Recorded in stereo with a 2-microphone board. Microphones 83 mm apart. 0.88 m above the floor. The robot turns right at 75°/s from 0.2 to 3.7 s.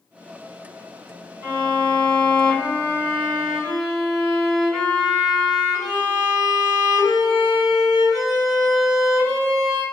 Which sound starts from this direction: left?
A violin, at 1.4 s.